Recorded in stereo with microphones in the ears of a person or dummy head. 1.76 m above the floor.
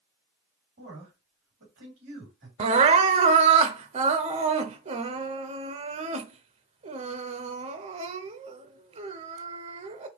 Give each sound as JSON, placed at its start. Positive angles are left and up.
{"t": 0.8, "sound": "a man speaking", "side_deg": -50, "distance_m": 3.0}
{"t": 2.6, "sound": "crying", "side_deg": -40, "distance_m": 0.6}